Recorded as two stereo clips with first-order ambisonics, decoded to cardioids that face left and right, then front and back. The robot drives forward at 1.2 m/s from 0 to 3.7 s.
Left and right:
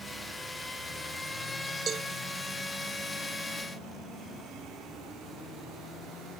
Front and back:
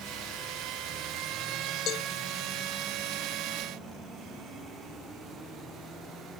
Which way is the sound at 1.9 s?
35° right.